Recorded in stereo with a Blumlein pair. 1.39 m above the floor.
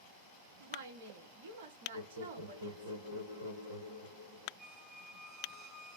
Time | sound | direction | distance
0.6 | a woman speaking | 60° right | 1.0 m
1.9 | laughter | 65° right | 0.9 m
4.6 | a squeak | 35° right | 0.9 m